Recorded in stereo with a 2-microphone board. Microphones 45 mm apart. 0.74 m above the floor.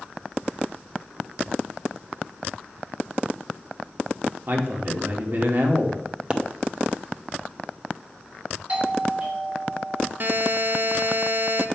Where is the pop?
25° right (ahead or behind), 0.6 m.